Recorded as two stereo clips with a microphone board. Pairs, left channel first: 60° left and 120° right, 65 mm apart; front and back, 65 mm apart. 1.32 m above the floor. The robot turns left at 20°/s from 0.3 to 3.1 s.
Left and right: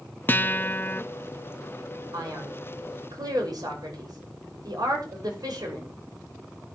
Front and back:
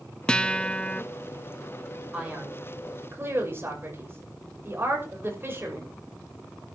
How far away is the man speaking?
About 6 m.